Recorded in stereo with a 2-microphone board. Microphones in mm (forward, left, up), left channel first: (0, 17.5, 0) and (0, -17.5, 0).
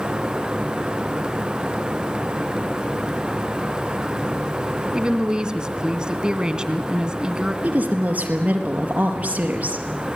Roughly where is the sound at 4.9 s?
Right.